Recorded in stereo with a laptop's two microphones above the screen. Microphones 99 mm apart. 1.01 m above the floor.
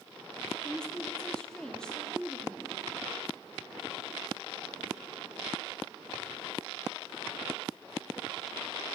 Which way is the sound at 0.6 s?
10° left (ahead or behind).